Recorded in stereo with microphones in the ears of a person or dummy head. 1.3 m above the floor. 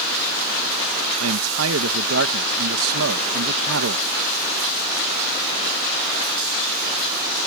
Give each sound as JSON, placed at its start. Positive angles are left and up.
{"t": 1.2, "sound": "a man speaking", "side_deg": -80}